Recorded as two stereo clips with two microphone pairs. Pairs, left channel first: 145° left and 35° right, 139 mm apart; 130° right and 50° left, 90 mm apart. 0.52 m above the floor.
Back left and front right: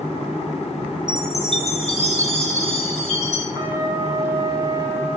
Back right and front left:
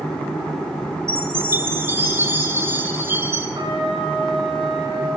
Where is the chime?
110° left, 3.5 m.